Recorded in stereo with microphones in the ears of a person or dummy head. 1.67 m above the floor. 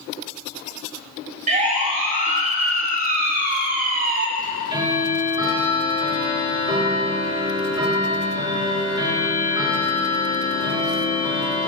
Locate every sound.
1.5 s a siren: 45° right (ahead or behind), 3.5 m; by 4.3 s 50° right (ahead or behind), 1.3 m
4.4 s ticking: 25° right (ahead or behind), 2.5 m